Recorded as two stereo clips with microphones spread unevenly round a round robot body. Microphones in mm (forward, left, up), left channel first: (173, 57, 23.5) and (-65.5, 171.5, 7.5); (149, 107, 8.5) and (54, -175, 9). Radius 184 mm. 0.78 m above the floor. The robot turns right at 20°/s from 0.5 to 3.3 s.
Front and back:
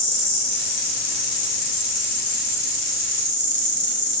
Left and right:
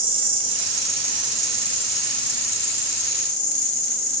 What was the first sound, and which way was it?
An insect, 35° right.